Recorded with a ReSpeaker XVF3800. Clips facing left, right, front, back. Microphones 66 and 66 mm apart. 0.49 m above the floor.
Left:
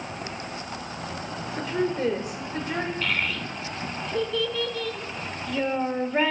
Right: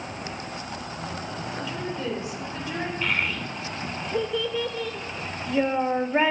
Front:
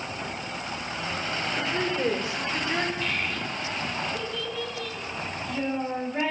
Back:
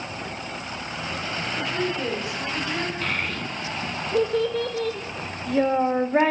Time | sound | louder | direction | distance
1.6 | a woman speaking | left 8 dB, back 1 dB | 60° left | 1.4 m
3.0 | a child speaking | right 1 dB, back 2 dB | 160° right | 0.9 m